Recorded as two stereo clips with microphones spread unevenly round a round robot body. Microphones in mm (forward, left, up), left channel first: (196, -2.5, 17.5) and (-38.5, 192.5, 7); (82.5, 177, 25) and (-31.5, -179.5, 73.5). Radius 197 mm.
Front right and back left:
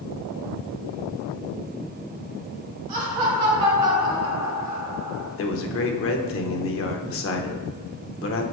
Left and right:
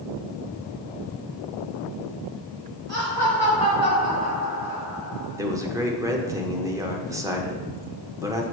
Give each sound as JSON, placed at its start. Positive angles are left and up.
{"t": 2.9, "sound": "laughter", "azimuth_deg": 160, "distance_m": 2.5}
{"t": 5.4, "sound": "a man speaking", "azimuth_deg": -20, "distance_m": 1.0}